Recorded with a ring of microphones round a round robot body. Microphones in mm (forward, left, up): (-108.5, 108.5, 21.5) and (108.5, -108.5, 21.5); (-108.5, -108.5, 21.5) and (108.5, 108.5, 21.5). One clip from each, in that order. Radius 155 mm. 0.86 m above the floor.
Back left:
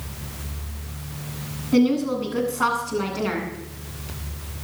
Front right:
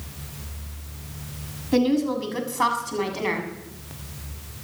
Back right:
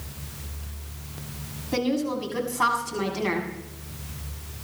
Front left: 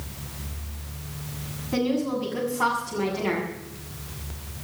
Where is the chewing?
I don't hear chewing.